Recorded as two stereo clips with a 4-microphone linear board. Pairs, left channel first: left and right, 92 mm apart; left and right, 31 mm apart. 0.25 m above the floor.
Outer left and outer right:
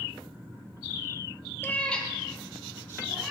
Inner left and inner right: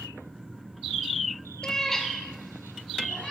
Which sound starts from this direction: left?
A cat meowing, at 1.6 s.